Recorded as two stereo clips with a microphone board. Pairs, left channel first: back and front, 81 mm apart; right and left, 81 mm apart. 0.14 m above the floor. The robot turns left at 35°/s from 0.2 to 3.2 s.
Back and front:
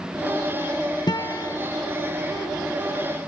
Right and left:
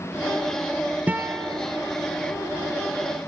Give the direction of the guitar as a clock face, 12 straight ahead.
7 o'clock.